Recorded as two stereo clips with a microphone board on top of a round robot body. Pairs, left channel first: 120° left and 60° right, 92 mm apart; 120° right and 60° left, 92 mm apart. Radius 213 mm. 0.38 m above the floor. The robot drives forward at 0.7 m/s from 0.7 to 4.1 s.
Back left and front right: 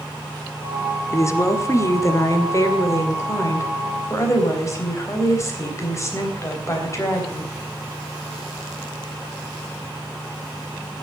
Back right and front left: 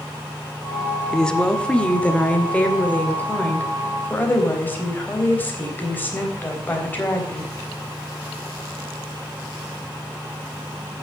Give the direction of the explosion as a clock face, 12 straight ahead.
No explosion in this recording.